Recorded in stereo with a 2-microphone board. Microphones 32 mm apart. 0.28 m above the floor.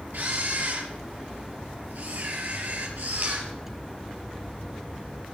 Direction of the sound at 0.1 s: 65° right (ahead or behind).